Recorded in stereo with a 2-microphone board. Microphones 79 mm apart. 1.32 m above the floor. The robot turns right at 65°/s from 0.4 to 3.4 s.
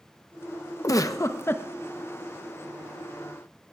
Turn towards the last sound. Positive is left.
turn(degrees=-105)